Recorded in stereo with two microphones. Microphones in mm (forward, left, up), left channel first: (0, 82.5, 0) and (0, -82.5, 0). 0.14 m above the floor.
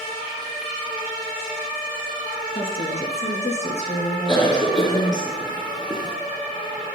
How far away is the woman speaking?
About 1.9 m.